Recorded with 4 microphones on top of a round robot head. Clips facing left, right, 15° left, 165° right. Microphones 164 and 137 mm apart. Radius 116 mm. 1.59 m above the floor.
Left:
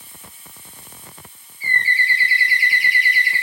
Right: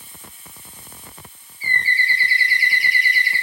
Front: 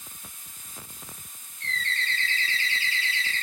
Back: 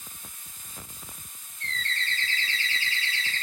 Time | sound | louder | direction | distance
1.6 | a bird | left 1 dB, front 2 dB | 140° right | 1.8 m